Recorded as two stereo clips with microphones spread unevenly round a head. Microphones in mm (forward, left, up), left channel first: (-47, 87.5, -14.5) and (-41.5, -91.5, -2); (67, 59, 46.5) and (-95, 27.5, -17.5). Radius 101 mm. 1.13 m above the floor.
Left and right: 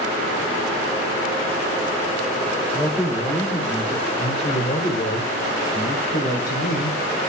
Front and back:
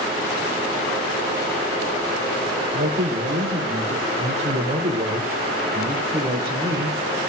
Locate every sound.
2.7 s a man speaking: 165° left, 3.5 m; by 7.3 s 110° left, 4 m